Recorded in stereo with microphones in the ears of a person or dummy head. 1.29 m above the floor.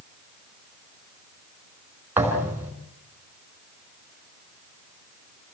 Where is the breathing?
No breathing in this recording.